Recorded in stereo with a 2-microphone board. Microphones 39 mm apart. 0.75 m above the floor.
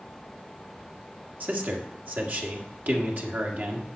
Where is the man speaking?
55° right (ahead or behind), 1.6 m.